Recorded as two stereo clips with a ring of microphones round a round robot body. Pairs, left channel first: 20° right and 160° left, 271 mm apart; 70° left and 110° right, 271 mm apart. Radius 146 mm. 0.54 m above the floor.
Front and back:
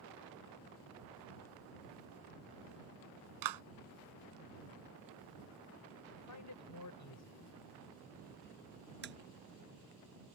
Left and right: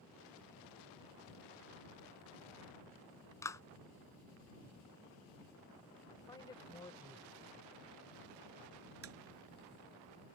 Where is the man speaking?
10° right.